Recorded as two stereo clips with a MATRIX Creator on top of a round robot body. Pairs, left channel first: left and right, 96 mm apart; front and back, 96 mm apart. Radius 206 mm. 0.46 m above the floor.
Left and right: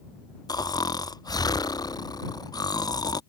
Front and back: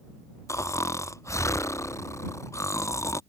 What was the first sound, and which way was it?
Snoring, 55° left.